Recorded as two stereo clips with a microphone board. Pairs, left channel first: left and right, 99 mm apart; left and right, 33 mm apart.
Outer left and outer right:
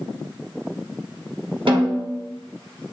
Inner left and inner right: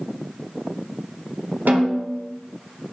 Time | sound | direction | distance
1.7 | a snare drum | 75° right (ahead or behind) | 2 m